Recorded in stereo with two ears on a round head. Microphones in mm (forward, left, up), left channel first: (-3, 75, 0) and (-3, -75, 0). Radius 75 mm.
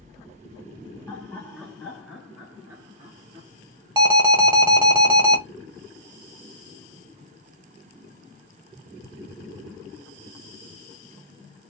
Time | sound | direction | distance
1.1 | laughter | 10° left (ahead or behind) | 1.4 m
4.0 | an alarm | 25° right (ahead or behind) | 0.8 m